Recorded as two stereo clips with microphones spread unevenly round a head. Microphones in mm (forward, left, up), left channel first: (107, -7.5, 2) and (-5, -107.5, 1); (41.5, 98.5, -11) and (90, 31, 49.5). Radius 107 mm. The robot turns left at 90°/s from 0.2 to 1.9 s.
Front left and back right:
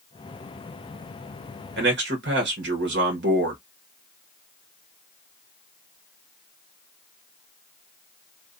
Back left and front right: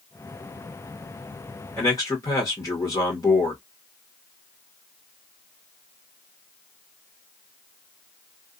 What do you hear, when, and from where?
1.8 s a man speaking: 155° right, 0.9 m; by 3.6 s 170° right, 0.9 m